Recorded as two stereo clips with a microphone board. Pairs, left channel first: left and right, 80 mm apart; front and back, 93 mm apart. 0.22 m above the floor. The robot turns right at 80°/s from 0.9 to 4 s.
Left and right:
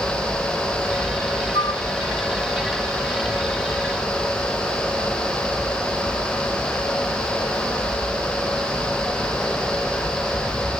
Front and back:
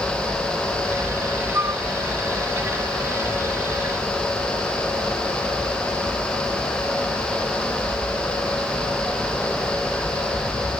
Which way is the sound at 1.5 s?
115° left.